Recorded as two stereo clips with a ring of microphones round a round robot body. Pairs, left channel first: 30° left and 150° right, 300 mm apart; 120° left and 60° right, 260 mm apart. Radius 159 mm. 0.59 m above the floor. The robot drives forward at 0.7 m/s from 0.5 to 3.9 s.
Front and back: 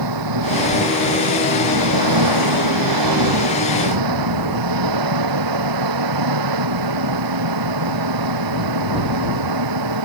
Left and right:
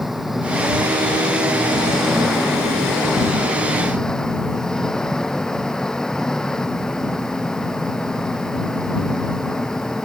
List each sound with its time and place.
0.0 s an engine running: 150° right